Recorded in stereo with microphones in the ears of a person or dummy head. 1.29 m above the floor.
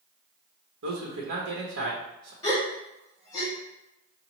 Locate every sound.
0.8 s a man speaking: 75° right (ahead or behind), 1.1 m
2.4 s a gasp: 20° left (ahead or behind), 1.7 m